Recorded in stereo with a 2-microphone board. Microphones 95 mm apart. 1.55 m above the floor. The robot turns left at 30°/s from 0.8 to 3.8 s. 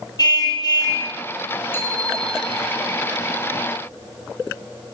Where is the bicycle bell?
25° left (ahead or behind), 5.5 m; by 2.7 s 5° right (ahead or behind), 5.5 m.